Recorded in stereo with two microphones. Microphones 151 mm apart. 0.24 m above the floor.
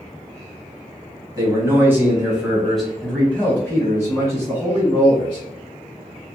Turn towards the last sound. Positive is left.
turn(degrees=35)  # may be behind; listen again after turning